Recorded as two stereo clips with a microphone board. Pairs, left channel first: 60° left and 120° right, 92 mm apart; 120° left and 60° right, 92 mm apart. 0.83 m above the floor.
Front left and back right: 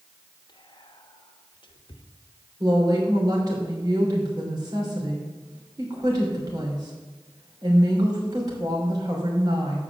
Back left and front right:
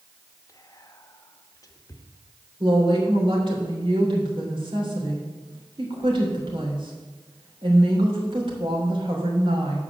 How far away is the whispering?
About 0.8 m.